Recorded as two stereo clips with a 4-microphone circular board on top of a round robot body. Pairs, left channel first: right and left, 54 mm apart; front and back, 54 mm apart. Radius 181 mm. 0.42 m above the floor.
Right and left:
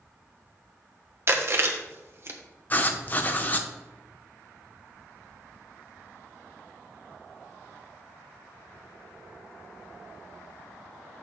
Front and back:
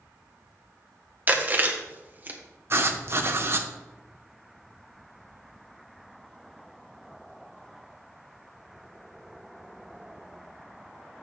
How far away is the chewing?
About 1.2 m.